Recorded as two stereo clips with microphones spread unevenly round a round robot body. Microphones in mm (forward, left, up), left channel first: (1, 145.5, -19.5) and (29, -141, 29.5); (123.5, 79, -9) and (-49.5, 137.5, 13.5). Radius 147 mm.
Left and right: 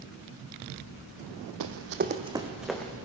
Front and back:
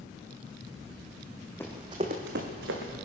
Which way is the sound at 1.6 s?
105° right.